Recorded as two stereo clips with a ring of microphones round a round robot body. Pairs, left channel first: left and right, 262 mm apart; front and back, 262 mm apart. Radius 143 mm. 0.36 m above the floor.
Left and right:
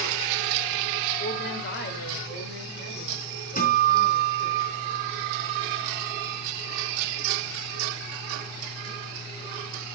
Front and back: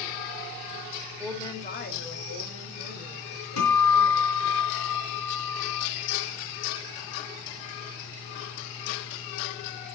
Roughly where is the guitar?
Ahead left.